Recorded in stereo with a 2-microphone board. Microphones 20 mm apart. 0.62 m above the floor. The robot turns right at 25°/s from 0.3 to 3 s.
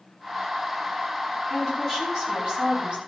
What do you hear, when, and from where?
1.5 s a woman speaking: 165° right, 5.5 m; by 3.0 s 125° right, 5.5 m